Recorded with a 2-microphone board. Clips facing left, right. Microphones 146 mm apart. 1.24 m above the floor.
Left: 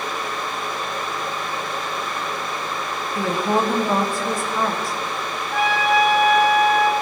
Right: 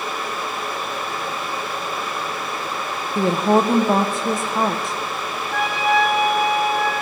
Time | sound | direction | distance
3.1 | a woman speaking | 20° right (ahead or behind) | 0.6 m
5.5 | a trumpet | 5° left (ahead or behind) | 3 m